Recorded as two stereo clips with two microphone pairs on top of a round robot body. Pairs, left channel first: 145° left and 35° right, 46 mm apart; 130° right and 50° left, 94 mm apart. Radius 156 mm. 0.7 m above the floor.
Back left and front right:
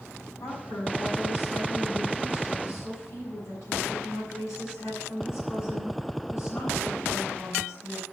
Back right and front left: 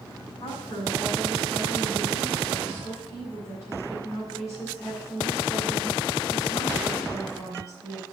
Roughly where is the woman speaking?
Behind.